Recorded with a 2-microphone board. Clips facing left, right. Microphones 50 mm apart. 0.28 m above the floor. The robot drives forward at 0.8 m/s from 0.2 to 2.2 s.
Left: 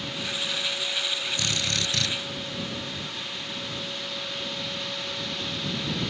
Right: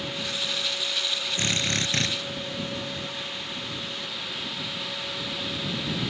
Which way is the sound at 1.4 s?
30° right (ahead or behind).